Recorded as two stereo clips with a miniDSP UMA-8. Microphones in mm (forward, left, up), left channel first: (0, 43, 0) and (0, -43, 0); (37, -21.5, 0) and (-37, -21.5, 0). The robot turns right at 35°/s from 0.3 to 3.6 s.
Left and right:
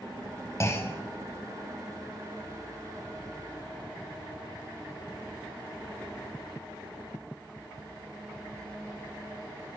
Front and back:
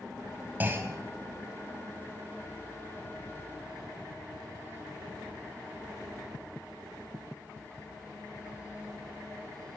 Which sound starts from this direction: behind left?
A clunk, at 0.6 s.